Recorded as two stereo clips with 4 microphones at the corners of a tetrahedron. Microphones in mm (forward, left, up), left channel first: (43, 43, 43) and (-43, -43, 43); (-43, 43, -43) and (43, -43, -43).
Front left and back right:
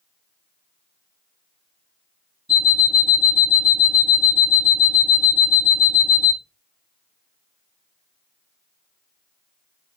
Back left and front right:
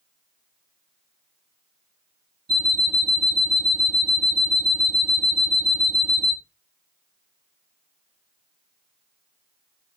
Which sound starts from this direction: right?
An alarm clock, at 2.5 s.